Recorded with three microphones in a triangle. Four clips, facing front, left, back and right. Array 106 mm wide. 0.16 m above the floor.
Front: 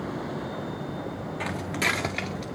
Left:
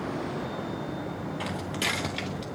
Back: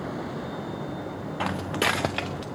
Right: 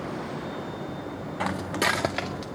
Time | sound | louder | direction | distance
1.4 | footsteps | right 8 dB, back 3 dB | 135° right | 0.8 m